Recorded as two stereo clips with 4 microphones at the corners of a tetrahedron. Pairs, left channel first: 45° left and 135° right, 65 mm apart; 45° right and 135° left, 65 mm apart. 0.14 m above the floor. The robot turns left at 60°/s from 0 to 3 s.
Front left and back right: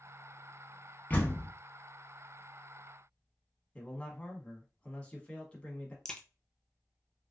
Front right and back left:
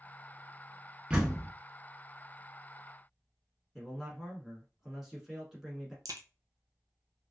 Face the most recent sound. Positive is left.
turn(degrees=125)